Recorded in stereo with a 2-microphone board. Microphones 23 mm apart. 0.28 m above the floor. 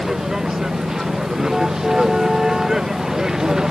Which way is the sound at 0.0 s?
20° right (ahead or behind).